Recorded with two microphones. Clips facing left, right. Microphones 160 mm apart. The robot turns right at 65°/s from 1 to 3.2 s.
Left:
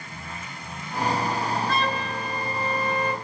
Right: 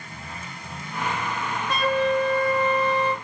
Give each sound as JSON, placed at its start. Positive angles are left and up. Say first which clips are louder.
{"t": 1.7, "sound": "a flute", "louder": "right 5 dB", "azimuth_deg": -20, "distance_m": 0.8}